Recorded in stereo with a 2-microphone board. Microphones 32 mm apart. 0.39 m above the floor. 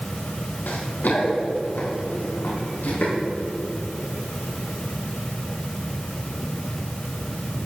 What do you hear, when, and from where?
0.7 s running footsteps: 85° left, 3 m; by 3.1 s 75° left (ahead or behind), 7 m